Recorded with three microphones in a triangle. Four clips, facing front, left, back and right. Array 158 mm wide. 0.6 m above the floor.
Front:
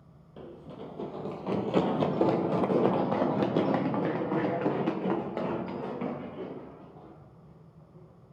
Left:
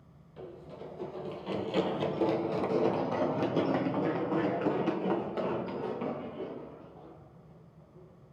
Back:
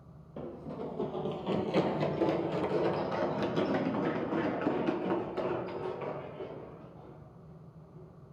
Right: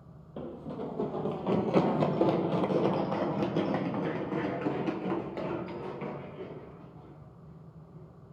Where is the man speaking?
No man speaking in this recording.